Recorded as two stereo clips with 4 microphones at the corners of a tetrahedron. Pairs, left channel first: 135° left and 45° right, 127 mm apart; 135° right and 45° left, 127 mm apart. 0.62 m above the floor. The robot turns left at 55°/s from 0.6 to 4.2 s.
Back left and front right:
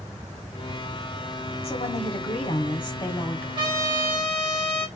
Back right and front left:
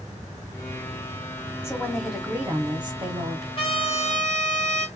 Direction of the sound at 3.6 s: 90° right.